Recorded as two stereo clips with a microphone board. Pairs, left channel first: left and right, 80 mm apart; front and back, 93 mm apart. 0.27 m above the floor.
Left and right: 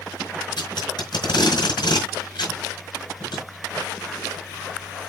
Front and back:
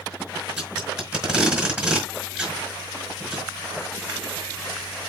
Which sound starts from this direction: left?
Tape being pulled, at 0.6 s.